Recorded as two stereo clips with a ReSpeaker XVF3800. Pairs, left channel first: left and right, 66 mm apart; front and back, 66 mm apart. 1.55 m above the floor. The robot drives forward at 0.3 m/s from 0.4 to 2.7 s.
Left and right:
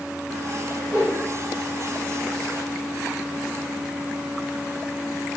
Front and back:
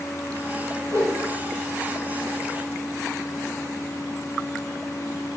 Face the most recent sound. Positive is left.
turn(degrees=140)